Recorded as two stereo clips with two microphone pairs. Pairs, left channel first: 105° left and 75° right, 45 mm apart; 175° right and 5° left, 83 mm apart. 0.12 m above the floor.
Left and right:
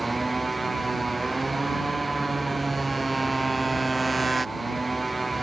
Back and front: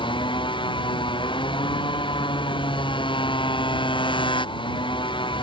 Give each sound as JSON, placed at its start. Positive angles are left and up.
{"t": 0.0, "sound": "a motorcycle", "azimuth_deg": -170}